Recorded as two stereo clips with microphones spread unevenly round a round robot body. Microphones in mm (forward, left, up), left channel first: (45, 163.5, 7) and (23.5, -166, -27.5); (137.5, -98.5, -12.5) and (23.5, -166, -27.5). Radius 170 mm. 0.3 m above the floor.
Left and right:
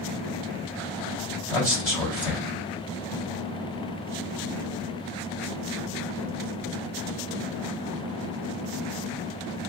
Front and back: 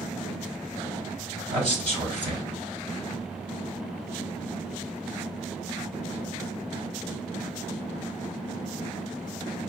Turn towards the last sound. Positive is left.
turn(degrees=160)